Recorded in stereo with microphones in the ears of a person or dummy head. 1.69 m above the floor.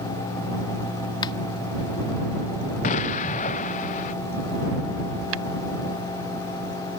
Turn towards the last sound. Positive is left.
turn(degrees=-80)